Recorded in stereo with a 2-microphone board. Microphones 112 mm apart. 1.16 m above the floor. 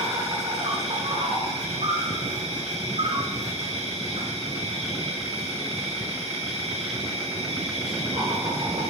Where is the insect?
65° right (ahead or behind), 5.5 m.